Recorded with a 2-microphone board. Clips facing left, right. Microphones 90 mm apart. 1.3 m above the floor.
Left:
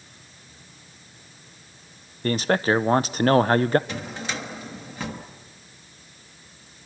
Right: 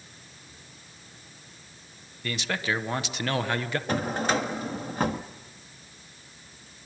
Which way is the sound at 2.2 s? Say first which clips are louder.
Left 9 dB; 40° left (ahead or behind).